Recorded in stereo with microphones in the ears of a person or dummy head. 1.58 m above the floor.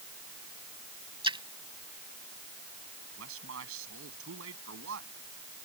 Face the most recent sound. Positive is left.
turn(degrees=-70)  # may be behind; listen again after turning